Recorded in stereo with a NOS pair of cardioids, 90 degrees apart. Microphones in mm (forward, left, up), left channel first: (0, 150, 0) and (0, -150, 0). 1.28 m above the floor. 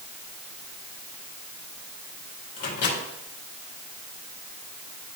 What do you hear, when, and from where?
2.6 s a microwave: 55° left, 2.5 m